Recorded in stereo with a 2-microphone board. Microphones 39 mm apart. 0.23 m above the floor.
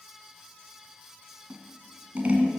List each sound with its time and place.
1.5 s scissors: 35° right (ahead or behind), 1.5 m